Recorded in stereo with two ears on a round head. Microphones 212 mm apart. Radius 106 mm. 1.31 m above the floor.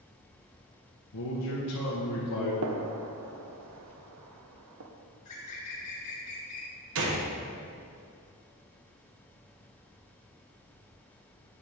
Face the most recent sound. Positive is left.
turn(degrees=-65)  # may be behind; listen again after turning